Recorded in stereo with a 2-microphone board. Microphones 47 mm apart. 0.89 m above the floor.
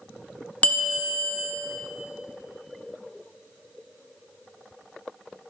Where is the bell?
35° left (ahead or behind), 0.6 m.